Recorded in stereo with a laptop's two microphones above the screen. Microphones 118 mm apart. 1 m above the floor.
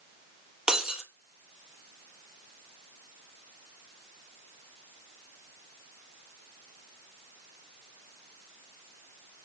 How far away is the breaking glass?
About 1.3 m.